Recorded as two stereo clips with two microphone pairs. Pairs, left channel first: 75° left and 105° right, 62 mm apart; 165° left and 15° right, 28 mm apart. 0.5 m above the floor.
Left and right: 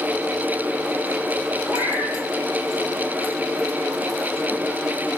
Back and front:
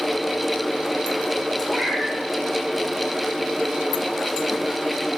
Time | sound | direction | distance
1.7 | a cat meowing | 90° right | 8 m